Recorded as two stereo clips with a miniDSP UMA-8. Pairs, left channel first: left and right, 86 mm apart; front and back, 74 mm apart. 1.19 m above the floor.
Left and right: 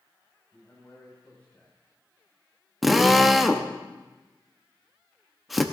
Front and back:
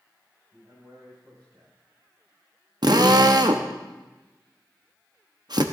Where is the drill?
Straight behind, 0.8 m.